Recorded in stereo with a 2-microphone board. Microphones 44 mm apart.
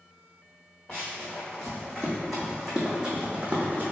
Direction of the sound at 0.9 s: 15° left (ahead or behind).